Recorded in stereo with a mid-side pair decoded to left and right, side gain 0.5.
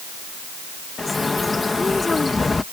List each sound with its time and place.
1.0 s a bird: 20° left